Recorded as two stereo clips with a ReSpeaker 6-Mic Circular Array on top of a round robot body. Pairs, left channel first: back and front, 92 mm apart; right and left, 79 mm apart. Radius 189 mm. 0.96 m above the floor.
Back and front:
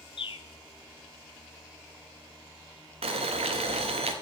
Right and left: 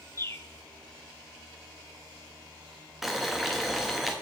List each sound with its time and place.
0.2 s a bird: 145° right, 0.7 m
3.0 s boiling: straight ahead, 0.6 m